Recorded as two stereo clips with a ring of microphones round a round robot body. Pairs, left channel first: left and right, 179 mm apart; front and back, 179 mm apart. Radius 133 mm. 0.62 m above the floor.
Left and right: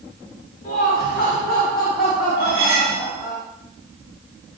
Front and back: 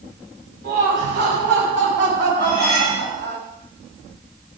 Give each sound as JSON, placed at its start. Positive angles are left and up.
{"t": 0.6, "sound": "laughter", "azimuth_deg": 150, "distance_m": 4.5}
{"t": 2.4, "sound": "cutlery clinking", "azimuth_deg": -60, "distance_m": 5.5}